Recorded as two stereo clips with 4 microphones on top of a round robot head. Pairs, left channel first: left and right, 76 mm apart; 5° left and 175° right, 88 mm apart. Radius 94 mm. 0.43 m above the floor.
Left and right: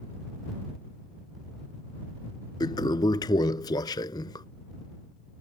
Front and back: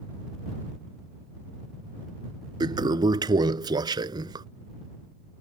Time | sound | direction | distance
2.6 | a toilet flushing | 140° left | ?